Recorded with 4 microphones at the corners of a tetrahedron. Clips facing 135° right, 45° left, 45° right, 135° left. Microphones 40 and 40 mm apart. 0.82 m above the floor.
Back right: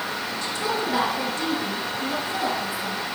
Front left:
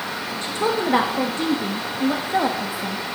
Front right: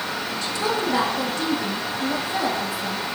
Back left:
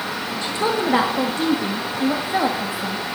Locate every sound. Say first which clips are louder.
0.4 s a woman speaking: front left 5 dB, back left 3 dB; 80° left, 1.2 m